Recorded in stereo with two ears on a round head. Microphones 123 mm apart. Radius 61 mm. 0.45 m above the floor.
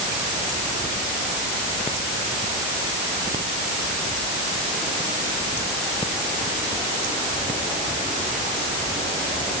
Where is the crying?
I don't hear crying.